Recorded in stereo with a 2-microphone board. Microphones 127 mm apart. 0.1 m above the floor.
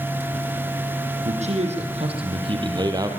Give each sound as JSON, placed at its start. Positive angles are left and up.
{"t": 1.2, "sound": "a man speaking", "side_deg": -65, "distance_m": 4.5}